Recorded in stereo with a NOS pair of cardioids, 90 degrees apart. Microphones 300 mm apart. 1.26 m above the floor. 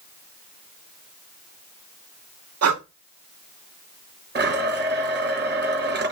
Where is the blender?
35° right, 6 m.